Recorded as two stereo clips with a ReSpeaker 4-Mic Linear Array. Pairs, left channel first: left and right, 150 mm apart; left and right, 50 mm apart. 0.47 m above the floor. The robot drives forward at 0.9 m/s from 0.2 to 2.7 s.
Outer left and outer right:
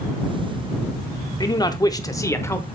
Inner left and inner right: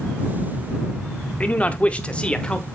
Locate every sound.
1.4 s a man speaking: 25° left (ahead or behind), 0.7 m; by 2.6 s 15° left (ahead or behind), 1.2 m